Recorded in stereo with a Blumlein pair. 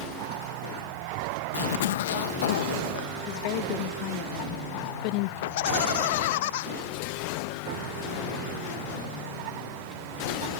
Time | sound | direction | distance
1.5 | a zipper | 55° left | ?
3.3 | a woman speaking | 45° left | ?
5.4 | laughter | 50° left | ?